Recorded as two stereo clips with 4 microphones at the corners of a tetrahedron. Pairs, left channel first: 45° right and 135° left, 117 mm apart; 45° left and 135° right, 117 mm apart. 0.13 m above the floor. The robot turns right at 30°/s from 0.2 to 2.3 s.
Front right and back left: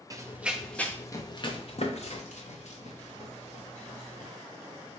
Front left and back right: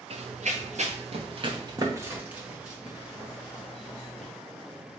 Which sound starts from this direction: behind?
Running footsteps, at 0.1 s.